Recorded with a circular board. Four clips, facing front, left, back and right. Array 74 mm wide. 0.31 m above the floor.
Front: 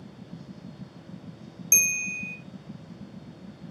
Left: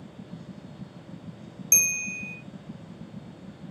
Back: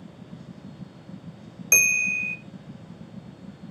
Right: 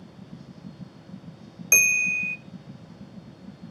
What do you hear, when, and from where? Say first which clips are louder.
1.7 s a bell: right 10 dB, back 8 dB; 140° right, 0.6 m